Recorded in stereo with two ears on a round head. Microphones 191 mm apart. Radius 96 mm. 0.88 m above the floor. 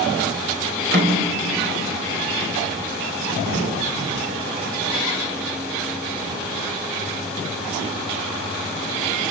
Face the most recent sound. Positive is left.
turn(degrees=-40)  # may be behind; listen again after turning